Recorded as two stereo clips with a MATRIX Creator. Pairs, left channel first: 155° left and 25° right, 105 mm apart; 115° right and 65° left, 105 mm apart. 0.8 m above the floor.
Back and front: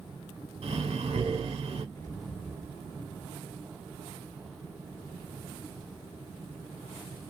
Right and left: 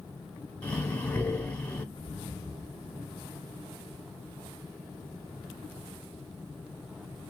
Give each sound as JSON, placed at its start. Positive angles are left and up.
{"t": 0.6, "sound": "breathing", "azimuth_deg": -40, "distance_m": 0.9}
{"t": 1.9, "sound": "an explosion", "azimuth_deg": -150, "distance_m": 1.2}